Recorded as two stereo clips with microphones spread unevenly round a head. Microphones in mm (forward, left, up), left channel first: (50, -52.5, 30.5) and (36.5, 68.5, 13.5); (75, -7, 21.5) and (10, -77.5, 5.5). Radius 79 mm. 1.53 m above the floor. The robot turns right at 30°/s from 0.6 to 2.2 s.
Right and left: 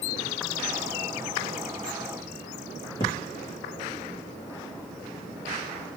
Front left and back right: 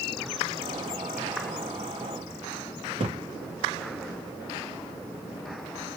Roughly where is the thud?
Behind right.